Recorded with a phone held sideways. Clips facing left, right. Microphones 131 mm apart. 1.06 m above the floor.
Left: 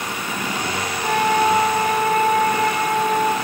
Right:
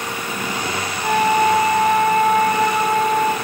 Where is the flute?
15° right (ahead or behind), 0.9 m.